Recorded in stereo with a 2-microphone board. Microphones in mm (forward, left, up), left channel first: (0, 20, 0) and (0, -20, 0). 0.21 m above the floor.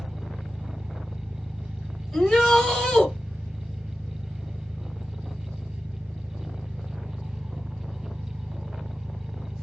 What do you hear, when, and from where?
0.0 s an engine running: 60° right (ahead or behind), 1.7 m
2.1 s a shout: 10° left (ahead or behind), 1.5 m